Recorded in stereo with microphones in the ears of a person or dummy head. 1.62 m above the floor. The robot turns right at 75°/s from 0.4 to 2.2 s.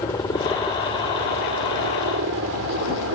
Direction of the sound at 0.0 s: 20° left (ahead or behind).